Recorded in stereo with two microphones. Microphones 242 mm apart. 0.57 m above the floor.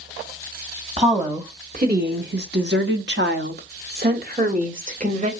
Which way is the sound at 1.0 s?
25° right (ahead or behind).